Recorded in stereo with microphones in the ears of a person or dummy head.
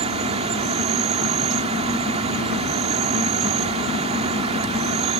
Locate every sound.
0.0 s an insect: 35° right (ahead or behind)